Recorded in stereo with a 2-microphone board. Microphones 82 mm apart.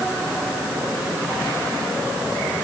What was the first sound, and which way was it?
Only background noise.